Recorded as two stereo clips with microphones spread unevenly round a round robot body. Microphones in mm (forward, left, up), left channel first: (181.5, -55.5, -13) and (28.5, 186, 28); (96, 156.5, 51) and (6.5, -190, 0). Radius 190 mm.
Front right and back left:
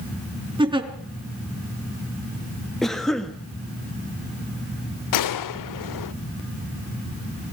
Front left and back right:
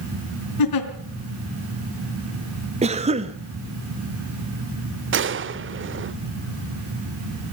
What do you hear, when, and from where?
0.6 s a giggle: 50° left, 4 m
2.8 s a cough: 130° right, 1.2 m
5.1 s a gunshot: 45° right, 0.9 m